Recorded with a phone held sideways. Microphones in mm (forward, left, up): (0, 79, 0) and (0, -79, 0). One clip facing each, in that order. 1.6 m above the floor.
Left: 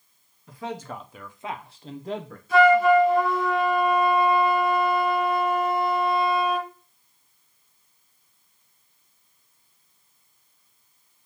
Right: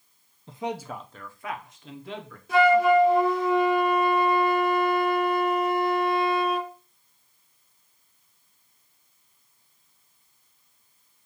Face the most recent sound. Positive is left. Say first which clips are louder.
# left 2 dB
turn(degrees=-70)  # may be behind; listen again after turning